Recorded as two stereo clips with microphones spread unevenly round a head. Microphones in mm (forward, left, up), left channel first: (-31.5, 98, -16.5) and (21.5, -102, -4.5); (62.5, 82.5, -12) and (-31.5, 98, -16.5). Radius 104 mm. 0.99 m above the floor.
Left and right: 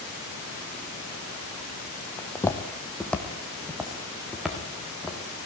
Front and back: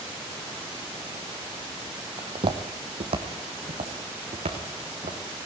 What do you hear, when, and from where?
2.2 s footsteps: straight behind, 1.4 m; by 5.2 s 165° right, 4 m